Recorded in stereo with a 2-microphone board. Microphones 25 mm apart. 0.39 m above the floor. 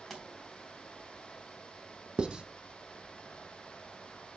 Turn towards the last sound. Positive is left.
turn(degrees=-40)  # may be behind; listen again after turning